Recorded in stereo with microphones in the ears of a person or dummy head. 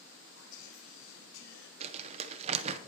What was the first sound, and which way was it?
Whispering, 70° left (ahead or behind).